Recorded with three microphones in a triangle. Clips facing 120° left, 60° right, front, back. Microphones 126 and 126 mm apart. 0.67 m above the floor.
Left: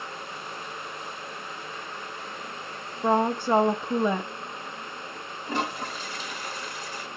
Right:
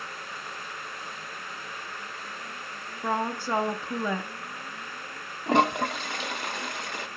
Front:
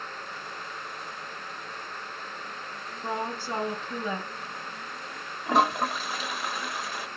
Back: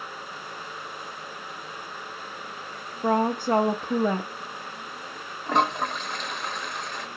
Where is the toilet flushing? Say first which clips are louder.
Right 8 dB, even; 85° right, 0.6 m.